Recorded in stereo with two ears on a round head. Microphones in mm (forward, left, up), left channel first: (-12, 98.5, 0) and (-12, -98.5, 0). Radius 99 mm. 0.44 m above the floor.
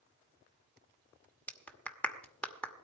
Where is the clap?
5° left (ahead or behind), 1.0 m.